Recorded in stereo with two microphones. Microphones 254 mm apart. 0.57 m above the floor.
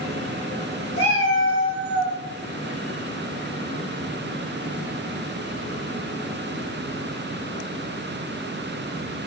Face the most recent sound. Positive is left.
turn(degrees=40)  # may be behind; listen again after turning